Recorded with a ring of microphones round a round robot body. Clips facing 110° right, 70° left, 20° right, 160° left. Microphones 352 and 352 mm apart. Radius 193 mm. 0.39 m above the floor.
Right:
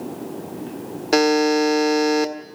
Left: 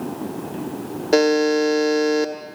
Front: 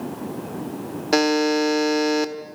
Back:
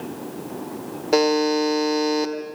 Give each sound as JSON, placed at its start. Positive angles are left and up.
{"t": 1.1, "sound": "a buzzer", "azimuth_deg": -60, "distance_m": 1.6}